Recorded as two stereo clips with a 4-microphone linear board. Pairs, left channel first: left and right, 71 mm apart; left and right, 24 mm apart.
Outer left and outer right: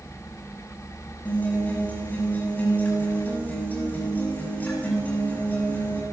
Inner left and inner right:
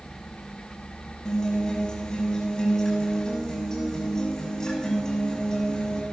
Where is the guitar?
25° left (ahead or behind), 6.5 m.